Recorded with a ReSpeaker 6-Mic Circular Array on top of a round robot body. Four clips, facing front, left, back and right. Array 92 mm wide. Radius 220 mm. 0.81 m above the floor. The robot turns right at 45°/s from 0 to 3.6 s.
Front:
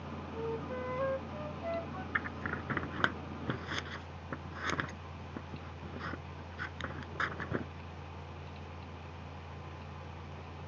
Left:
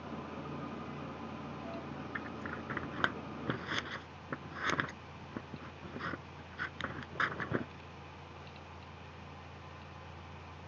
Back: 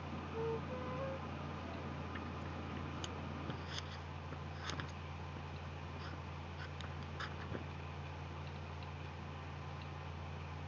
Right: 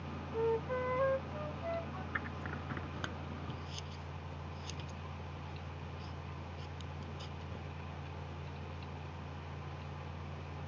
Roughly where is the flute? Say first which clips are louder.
Right 9 dB, front 3 dB; right.